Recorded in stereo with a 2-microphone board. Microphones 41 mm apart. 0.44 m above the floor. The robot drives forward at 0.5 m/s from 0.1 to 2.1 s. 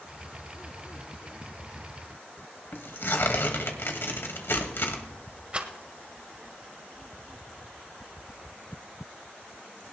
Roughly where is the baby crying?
I don't hear a baby crying.